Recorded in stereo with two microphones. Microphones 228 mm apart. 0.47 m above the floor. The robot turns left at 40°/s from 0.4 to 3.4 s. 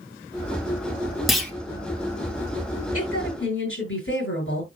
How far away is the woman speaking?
About 8.5 m.